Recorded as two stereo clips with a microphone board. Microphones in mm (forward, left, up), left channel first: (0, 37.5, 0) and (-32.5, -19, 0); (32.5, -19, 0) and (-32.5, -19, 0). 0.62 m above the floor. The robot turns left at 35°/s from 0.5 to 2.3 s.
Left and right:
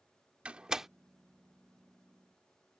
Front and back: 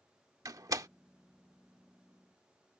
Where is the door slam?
170° left; by 0.9 s 155° left.